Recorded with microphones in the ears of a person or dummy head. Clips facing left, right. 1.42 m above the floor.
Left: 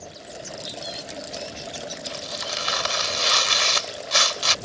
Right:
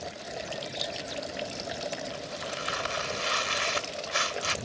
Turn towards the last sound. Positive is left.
turn(degrees=65)  # may be behind; listen again after turning